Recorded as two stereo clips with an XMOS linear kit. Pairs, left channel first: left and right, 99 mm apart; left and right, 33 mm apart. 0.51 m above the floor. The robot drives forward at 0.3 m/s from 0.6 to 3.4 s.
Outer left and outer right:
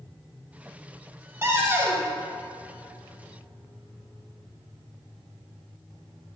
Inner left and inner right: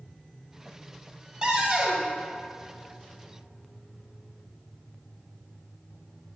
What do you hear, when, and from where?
1.4 s a cupboard door: 25° right (ahead or behind), 1.0 m